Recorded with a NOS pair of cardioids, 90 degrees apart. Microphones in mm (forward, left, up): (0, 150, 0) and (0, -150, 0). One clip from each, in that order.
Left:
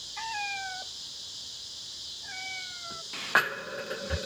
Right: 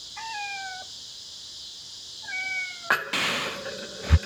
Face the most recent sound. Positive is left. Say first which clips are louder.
# even
turn(degrees=-60)